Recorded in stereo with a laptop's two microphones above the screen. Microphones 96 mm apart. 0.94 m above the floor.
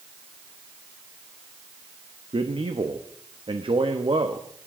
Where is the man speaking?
70° right (ahead or behind), 1.2 m.